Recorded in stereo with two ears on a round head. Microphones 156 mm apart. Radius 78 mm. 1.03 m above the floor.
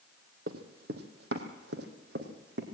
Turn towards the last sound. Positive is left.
turn(degrees=-70)  # may be behind; listen again after turning